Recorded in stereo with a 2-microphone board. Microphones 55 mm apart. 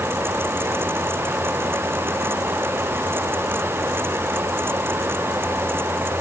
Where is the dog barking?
No dog barking in this recording.